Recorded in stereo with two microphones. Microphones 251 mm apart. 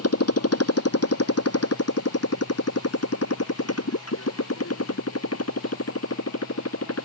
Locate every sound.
0.0 s a motorcycle: 70° left (ahead or behind)